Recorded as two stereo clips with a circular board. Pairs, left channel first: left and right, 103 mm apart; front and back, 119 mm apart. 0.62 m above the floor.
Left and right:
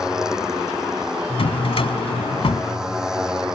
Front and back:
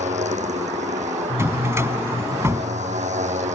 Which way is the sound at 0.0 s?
175° right.